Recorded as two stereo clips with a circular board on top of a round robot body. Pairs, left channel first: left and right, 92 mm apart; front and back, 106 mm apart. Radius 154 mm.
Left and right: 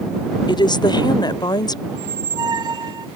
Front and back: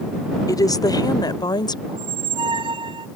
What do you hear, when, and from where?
0.5 s a woman speaking: 55° left; by 1.8 s 50° left
1.9 s a squeak: 140° right